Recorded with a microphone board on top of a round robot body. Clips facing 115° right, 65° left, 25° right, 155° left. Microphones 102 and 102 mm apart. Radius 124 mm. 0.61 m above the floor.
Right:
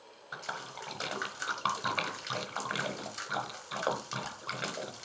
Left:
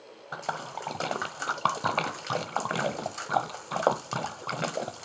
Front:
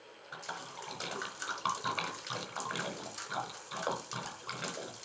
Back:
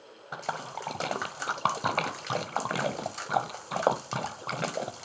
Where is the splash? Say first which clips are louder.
Left 7 dB, back 9 dB; 115° left, 0.9 m.